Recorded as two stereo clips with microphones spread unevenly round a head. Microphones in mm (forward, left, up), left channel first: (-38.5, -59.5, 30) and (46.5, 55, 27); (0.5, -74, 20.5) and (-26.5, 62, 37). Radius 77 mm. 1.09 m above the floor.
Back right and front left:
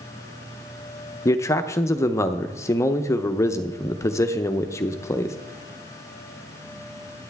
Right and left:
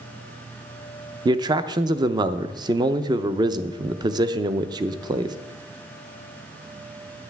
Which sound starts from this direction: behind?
A man speaking, at 1.2 s.